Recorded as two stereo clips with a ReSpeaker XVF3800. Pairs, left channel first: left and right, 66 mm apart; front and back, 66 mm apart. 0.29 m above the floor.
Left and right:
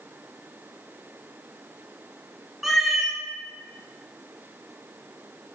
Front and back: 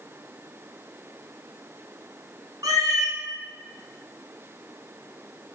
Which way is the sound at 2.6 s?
175° right.